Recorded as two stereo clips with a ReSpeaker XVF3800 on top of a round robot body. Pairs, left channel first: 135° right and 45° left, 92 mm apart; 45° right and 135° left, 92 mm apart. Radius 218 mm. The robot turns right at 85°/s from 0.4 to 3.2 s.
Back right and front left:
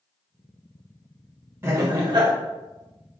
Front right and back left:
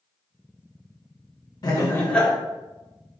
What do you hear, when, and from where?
1.6 s laughter: 10° right, 1.5 m; by 2.3 s 45° left, 1.5 m